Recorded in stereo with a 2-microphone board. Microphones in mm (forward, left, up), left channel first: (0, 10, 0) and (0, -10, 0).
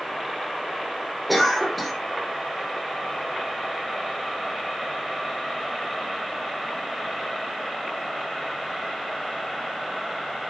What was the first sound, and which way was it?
A cough, centre (ahead or behind).